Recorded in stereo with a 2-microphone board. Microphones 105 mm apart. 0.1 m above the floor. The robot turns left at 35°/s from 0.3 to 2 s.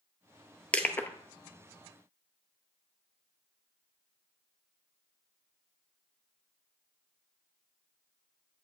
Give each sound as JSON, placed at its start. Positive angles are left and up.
{"t": 0.7, "sound": "crushing", "side_deg": 10, "distance_m": 0.6}